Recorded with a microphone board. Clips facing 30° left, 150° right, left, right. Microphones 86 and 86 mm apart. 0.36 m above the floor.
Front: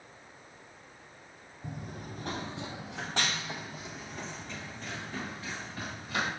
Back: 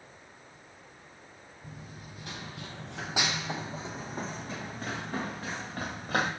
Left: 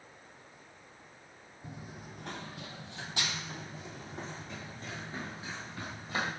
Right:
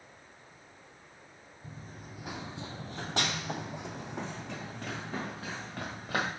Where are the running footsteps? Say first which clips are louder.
Front 6 dB, left 1 dB; 15° left, 0.8 m; by 6.3 s 115° right, 2 m.